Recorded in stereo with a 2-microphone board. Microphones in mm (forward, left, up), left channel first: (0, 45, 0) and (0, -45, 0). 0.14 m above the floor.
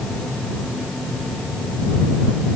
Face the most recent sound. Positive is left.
No sound to turn to.